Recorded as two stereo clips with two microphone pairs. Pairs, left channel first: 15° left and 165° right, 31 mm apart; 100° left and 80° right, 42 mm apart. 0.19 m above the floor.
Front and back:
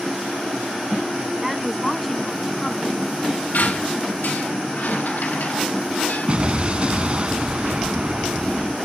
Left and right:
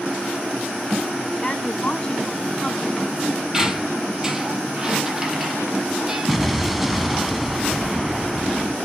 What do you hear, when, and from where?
1.4 s a woman speaking: 125° left, 1.5 m; by 3.4 s 50° left, 1.8 m
3.5 s a squeak: 5° right, 1.8 m
6.3 s an explosion: 165° right, 0.7 m